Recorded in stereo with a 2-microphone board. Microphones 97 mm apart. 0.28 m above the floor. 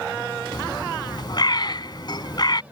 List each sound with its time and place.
0.5 s a bird: 50° left (ahead or behind)